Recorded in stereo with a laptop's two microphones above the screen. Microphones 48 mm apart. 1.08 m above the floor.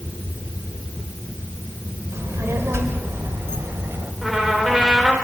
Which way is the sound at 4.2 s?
5° right (ahead or behind).